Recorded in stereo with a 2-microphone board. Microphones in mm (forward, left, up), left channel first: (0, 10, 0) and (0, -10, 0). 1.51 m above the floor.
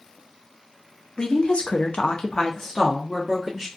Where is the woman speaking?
55° left (ahead or behind), 0.7 m; by 3.7 s centre (ahead or behind), 1.1 m.